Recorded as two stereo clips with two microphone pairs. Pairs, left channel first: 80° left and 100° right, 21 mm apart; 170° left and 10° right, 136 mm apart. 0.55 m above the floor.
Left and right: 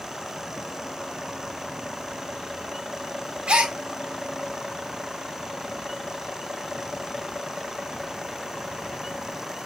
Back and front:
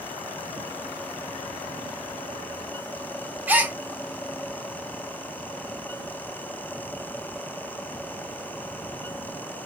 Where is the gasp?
85° right, 0.7 m.